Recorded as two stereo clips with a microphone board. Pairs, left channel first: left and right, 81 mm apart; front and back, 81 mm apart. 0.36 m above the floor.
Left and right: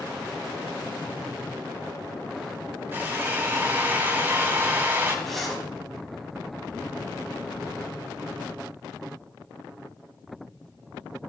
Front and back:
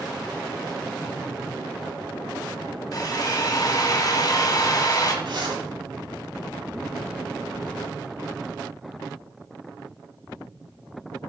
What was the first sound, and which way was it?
A drill, 30° right.